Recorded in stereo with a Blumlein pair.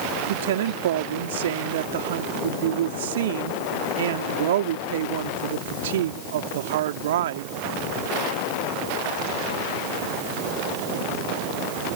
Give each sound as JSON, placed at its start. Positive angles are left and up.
{"t": 0.3, "sound": "a woman speaking", "azimuth_deg": -60}